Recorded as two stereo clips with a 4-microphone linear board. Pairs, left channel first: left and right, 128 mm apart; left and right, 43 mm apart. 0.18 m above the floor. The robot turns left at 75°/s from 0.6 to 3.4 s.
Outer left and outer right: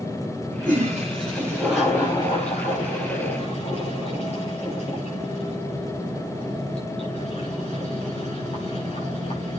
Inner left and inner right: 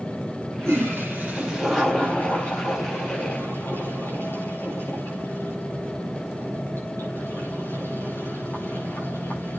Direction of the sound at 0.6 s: 85° right.